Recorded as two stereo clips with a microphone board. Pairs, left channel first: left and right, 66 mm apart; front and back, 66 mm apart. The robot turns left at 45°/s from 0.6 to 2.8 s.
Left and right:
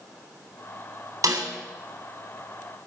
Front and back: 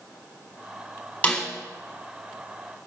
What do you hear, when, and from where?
1.2 s a snare drum: 65° right, 3.5 m; by 1.5 s 75° right, 3.5 m